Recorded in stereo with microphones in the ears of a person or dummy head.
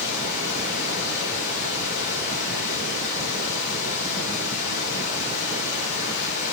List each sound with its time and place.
0.0 s running water: 60° left (ahead or behind), 3 m